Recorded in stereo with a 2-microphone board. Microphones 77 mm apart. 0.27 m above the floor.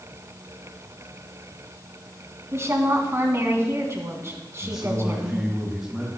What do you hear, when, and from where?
2.5 s a woman speaking: 40° right (ahead or behind), 2 m
4.6 s a man speaking: 5° right (ahead or behind), 2 m